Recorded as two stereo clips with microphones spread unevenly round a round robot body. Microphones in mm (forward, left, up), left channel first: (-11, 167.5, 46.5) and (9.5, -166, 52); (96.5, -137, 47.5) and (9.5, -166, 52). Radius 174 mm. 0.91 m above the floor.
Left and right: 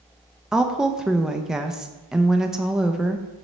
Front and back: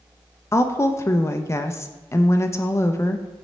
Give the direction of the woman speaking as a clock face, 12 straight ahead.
12 o'clock.